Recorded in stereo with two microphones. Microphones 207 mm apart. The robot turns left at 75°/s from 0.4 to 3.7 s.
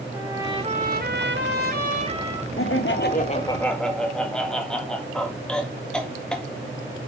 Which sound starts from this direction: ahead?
A trumpet, at 0.1 s.